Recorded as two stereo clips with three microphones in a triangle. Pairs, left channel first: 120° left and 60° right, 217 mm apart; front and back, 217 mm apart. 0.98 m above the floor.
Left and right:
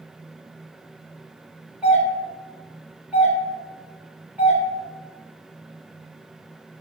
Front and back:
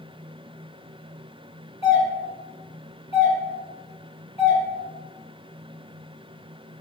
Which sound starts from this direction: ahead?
A doorbell, at 1.8 s.